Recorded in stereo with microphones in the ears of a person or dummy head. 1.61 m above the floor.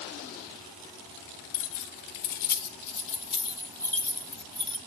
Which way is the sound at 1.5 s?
70° left (ahead or behind).